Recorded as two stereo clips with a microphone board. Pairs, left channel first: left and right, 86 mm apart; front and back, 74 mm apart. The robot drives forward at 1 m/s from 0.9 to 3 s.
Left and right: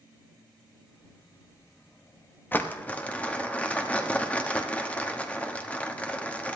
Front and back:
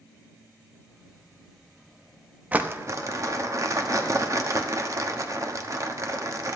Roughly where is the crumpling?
Behind left.